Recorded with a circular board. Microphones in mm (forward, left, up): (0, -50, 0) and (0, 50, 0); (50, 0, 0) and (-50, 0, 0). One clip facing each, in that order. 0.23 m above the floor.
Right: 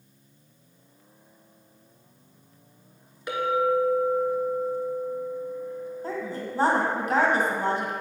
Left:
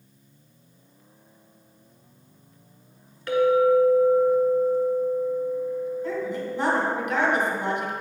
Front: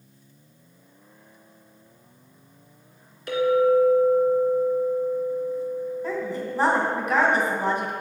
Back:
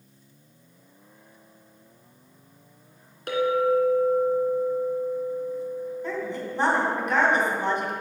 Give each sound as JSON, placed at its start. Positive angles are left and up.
{"t": 3.3, "sound": "a clink", "azimuth_deg": -160, "distance_m": 1.6}
{"t": 6.0, "sound": "a woman speaking", "azimuth_deg": -85, "distance_m": 1.9}